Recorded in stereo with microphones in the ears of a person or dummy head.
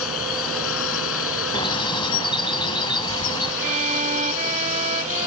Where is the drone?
85° left; by 5.3 s 75° left (ahead or behind).